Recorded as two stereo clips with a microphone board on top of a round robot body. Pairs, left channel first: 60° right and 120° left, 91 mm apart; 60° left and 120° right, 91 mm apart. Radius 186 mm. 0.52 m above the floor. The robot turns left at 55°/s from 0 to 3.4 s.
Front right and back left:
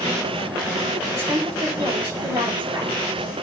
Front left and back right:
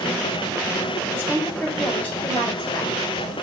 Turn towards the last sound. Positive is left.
turn(degrees=55)